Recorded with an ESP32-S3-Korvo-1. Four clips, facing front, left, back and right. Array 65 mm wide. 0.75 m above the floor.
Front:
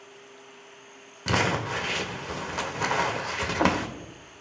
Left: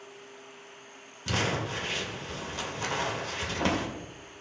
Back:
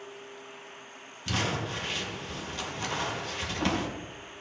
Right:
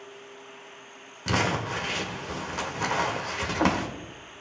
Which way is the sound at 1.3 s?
30° right.